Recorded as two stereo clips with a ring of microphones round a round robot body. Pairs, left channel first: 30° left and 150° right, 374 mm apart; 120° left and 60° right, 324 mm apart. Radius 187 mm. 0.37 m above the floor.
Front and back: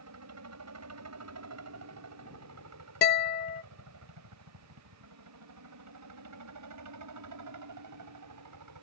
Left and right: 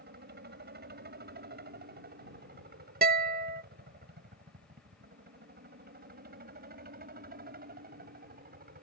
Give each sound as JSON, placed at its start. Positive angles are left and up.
{"t": 0.0, "sound": "a helicopter", "azimuth_deg": -115}
{"t": 3.0, "sound": "a guitar", "azimuth_deg": -20}